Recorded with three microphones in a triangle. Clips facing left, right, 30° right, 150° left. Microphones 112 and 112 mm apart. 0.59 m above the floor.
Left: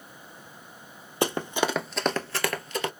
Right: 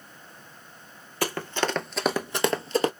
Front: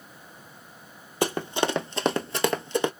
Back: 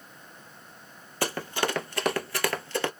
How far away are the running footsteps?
About 0.8 m.